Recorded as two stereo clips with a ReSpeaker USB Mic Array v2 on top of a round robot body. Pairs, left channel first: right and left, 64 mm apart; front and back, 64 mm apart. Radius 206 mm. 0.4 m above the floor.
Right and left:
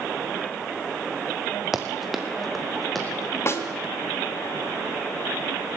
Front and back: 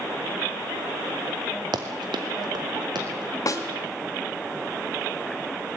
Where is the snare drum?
40° right, 2 m.